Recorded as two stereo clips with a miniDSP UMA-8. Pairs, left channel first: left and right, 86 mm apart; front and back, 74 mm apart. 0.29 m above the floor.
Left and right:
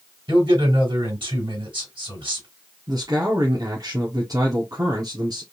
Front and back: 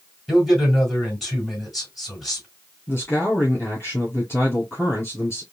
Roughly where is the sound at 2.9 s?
Ahead right.